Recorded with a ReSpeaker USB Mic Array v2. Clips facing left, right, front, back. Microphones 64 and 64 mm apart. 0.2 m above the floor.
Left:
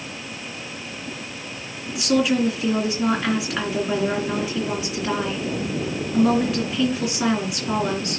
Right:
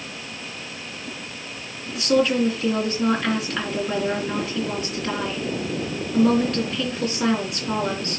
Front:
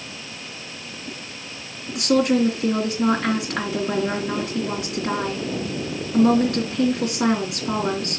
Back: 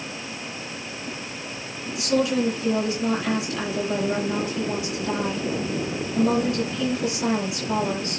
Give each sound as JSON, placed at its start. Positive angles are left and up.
{"t": 1.9, "sound": "a woman speaking", "azimuth_deg": 10, "distance_m": 3.0}